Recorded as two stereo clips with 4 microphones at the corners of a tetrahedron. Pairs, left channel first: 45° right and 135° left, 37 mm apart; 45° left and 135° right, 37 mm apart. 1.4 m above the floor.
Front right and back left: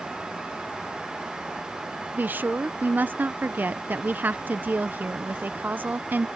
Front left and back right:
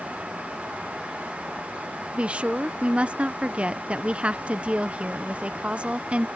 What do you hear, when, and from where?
2.1 s a woman speaking: 170° left